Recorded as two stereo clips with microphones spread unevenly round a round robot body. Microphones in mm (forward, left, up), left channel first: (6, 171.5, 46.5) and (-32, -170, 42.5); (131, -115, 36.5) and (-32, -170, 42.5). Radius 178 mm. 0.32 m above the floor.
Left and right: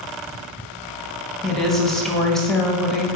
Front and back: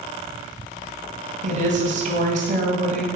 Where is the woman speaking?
175° left, 1.7 m.